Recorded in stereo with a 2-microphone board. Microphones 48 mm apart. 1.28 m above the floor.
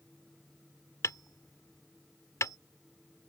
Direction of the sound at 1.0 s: 85° left.